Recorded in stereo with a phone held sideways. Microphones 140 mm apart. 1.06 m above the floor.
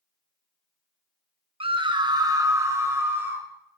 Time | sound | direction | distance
1.6 | a scream | 40° right (ahead or behind) | 0.7 m